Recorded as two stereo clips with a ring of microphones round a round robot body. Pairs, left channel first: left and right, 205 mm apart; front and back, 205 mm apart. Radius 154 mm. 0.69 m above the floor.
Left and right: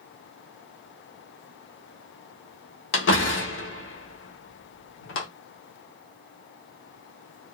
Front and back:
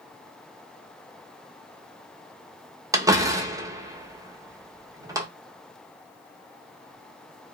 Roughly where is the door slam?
Left.